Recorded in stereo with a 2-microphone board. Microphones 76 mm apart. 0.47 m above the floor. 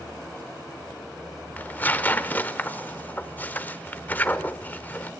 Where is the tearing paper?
25° left (ahead or behind), 0.8 m.